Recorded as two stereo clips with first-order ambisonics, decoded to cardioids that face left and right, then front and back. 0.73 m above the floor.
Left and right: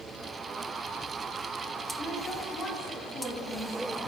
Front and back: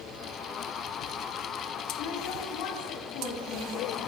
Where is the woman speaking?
20° left, 4 m; by 4.1 s 25° left, 5 m.